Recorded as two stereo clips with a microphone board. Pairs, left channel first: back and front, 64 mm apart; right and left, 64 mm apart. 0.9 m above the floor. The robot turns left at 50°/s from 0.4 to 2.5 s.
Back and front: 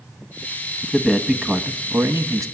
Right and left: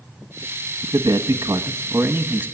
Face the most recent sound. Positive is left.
turn(degrees=20)